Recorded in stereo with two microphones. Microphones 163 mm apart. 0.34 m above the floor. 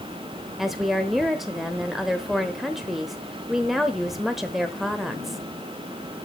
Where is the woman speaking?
Centre (ahead or behind), 1.0 m.